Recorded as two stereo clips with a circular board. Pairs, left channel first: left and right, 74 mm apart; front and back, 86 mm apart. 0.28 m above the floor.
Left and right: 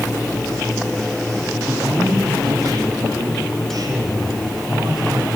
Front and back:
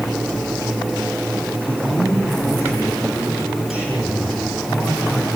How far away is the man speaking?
About 8.5 m.